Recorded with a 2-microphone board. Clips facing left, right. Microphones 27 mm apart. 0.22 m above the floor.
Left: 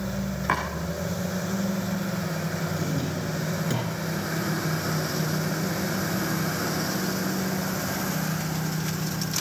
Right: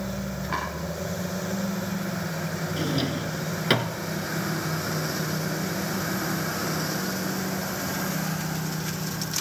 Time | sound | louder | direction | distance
0.5 | chopping | left 4 dB | 65° left (ahead or behind) | 7.5 m
2.8 | a drawer | right 2 dB | 55° right (ahead or behind) | 1.3 m